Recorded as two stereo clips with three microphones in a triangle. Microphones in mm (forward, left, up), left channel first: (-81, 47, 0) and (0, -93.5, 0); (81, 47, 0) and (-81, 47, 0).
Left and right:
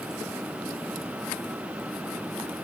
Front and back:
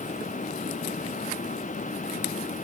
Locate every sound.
Only background noise.